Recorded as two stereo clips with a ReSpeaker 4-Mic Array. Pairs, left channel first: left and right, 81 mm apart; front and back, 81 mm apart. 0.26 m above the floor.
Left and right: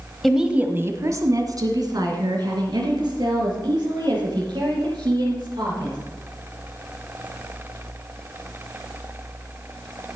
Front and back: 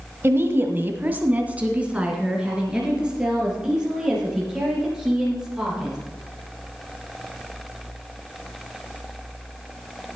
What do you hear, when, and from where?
0.2 s a woman speaking: 175° left, 1.0 m; by 6.0 s 100° right, 7.5 m